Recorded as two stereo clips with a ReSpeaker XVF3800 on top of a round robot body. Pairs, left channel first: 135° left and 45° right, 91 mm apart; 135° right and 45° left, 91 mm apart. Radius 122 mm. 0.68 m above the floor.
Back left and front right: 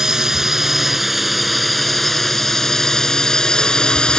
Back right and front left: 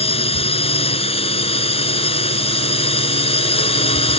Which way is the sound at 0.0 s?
130° right.